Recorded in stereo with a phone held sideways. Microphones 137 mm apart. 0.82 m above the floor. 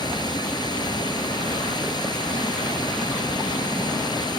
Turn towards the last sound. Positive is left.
turn(degrees=30)  # may be behind; listen again after turning